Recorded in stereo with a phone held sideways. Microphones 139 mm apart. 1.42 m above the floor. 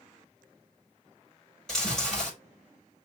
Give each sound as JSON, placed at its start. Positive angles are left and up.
{"t": 1.7, "sound": "chewing", "side_deg": 5, "distance_m": 5.0}